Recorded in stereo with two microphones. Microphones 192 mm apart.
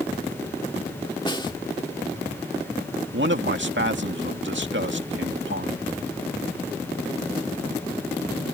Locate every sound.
1.3 s a snare drum: 25° left (ahead or behind)
3.1 s a man speaking: 75° right (ahead or behind)